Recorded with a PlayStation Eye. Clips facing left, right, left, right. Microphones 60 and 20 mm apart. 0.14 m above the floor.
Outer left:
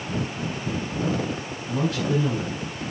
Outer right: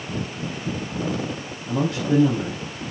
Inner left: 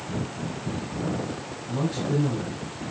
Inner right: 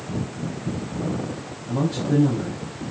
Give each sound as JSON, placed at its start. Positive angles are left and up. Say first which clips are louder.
{"t": 1.7, "sound": "a man speaking", "louder": "outer right 3 dB, inner right 4 dB", "side_deg": -35, "distance_m": 4.0}